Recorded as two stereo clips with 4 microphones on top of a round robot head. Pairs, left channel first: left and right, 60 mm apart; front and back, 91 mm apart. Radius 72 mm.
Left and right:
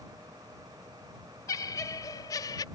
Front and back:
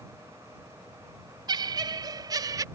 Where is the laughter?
140° left; by 2.6 s 130° left.